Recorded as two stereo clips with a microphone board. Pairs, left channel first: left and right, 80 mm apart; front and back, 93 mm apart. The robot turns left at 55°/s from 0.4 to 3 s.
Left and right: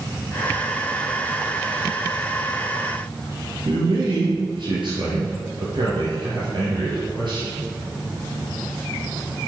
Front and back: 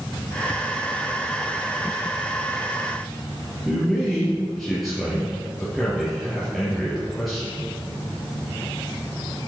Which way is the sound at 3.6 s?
90° right.